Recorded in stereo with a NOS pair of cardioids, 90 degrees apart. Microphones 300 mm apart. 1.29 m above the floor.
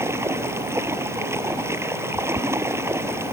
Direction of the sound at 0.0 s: 10° right.